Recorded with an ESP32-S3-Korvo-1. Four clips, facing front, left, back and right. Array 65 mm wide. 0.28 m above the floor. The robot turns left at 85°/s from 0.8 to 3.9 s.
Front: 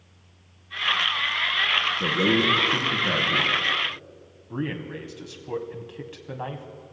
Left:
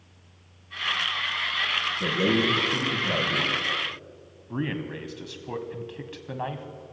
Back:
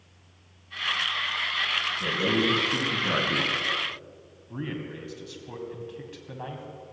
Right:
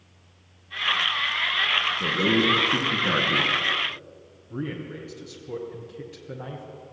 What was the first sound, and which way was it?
A man speaking, 10° right.